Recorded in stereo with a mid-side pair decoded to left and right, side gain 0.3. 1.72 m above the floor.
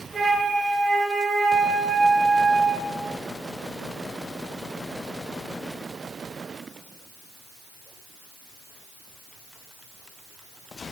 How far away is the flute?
About 5 m.